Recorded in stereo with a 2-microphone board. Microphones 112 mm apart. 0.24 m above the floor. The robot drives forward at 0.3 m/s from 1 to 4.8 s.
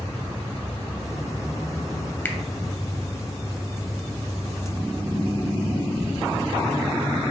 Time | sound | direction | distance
2.2 | a finger snap | 20° left (ahead or behind) | 0.7 m